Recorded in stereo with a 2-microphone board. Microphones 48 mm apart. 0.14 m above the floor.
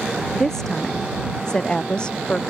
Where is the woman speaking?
10° left (ahead or behind); by 2.4 s 20° left (ahead or behind).